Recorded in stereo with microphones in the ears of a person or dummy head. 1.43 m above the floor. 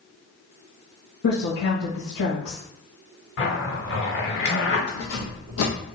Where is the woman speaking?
70° left (ahead or behind), 1.1 m.